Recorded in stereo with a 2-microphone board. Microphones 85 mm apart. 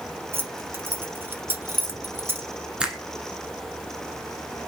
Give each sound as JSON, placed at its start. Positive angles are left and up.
{"t": 0.3, "sound": "keys jangling", "side_deg": -25, "distance_m": 0.9}
{"t": 2.8, "sound": "a finger snap", "side_deg": -10, "distance_m": 1.0}